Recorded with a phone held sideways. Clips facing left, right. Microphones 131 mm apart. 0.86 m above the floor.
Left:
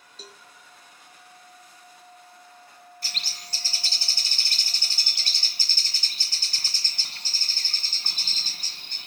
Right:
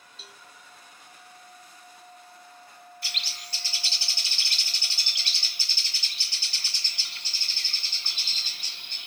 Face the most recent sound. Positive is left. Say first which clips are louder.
# left 1 dB
turn(degrees=45)  # may be behind; listen again after turning